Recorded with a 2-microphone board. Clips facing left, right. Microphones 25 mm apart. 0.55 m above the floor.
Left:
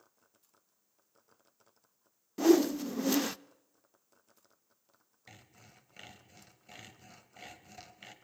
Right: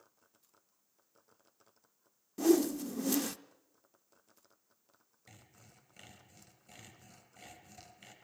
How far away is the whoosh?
About 0.6 m.